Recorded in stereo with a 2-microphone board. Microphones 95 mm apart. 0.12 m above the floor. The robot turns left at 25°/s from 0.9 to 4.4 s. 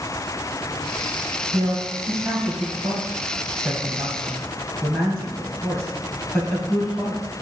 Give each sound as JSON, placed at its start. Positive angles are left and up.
{"t": 1.5, "sound": "a man speaking", "side_deg": -45, "distance_m": 2.5}